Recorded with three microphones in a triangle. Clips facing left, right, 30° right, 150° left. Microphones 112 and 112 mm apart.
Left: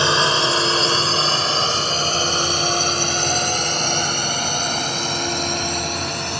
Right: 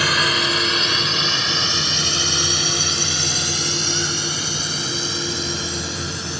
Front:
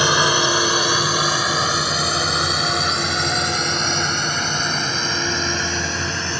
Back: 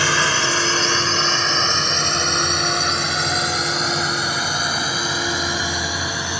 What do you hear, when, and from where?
0.0 s a drone: 35° left; by 6.4 s 70° left